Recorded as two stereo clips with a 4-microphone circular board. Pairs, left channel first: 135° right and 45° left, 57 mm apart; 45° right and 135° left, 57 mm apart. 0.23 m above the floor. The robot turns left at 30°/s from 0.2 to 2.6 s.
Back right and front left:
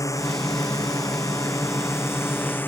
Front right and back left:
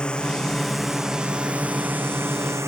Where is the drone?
120° right; by 2.7 s 170° left.